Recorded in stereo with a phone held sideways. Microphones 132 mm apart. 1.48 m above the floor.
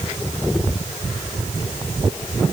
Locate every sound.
Only background noise.